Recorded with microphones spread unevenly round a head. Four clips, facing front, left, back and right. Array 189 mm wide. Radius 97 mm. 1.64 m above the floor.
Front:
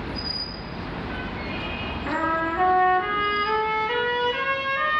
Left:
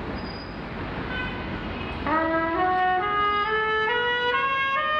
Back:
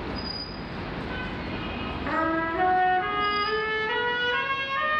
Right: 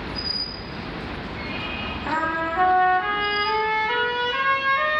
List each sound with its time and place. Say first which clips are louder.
2.1 s a trumpet: left 2 dB, front 1 dB; 100° left, 0.9 m